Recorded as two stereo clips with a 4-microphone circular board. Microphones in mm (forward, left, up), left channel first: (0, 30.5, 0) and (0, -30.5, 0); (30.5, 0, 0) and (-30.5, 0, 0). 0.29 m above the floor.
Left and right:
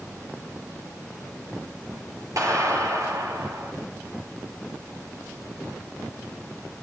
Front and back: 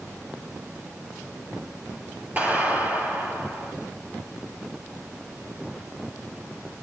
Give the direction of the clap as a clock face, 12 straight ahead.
4 o'clock.